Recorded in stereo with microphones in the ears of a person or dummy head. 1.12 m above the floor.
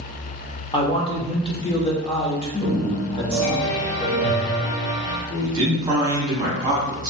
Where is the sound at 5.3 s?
30° right (ahead or behind), 0.7 m.